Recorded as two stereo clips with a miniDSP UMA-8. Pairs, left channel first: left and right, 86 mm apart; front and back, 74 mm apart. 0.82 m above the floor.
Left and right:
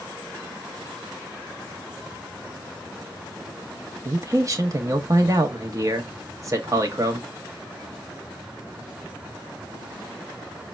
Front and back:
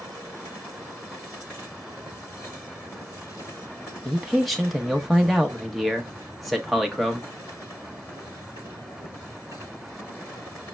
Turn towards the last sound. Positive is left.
turn(degrees=-90)